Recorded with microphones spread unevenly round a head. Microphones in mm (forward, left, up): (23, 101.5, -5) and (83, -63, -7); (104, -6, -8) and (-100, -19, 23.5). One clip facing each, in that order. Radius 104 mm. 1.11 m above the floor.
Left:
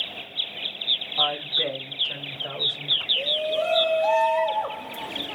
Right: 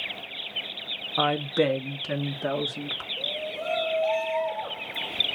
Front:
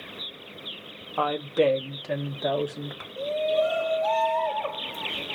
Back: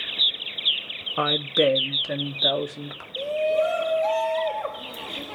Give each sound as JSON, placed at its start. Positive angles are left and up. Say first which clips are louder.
{"t": 1.2, "sound": "a woman speaking", "louder": "right 6 dB, back 1 dB", "azimuth_deg": -115, "distance_m": 1.4}
{"t": 3.2, "sound": "a shout", "louder": "left 9 dB, back 2 dB", "azimuth_deg": 130, "distance_m": 1.7}